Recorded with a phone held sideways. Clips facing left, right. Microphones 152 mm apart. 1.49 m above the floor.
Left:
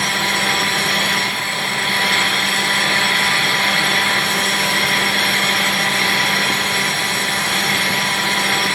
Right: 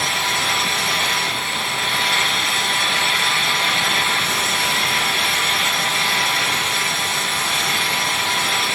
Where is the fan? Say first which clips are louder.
Left 3 dB; 65° left (ahead or behind), 3 m.